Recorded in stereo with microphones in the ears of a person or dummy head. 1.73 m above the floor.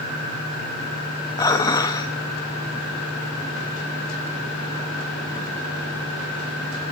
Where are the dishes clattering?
20° left (ahead or behind), 1.7 m.